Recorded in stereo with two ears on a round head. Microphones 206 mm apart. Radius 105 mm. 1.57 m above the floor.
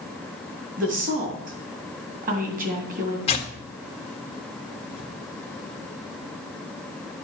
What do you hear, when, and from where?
0.8 s a woman speaking: 35° right (ahead or behind), 2.5 m
3.3 s tearing paper: 25° left (ahead or behind), 1.3 m